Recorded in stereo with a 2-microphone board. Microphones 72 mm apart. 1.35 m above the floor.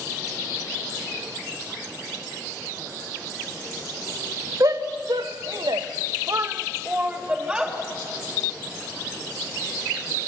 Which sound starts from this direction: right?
A shout, at 4.6 s.